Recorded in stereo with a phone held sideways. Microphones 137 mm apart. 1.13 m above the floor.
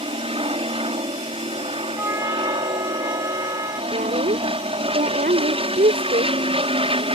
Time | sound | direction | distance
0.0 | an aircraft | 40° right (ahead or behind) | ?
2.0 | a trumpet | 20° right (ahead or behind) | ?
3.9 | a woman speaking | 90° right | ?